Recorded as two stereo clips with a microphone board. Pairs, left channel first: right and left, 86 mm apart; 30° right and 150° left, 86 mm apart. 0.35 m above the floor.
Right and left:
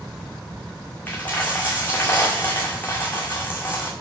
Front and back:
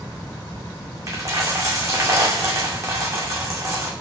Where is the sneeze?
No sneeze in this recording.